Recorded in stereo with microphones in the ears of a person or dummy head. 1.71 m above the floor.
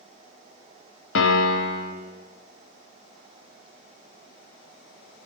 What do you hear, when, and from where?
1.1 s a piano: 80° left, 0.8 m